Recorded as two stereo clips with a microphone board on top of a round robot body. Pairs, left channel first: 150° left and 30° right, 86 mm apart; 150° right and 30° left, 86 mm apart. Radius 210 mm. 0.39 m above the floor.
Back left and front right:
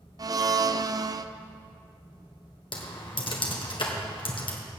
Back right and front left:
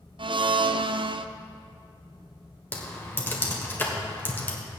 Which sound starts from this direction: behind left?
Typing on a keyboard, at 2.7 s.